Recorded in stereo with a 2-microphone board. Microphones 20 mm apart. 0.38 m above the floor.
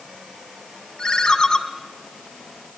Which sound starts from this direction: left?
A ringtone, at 1.0 s.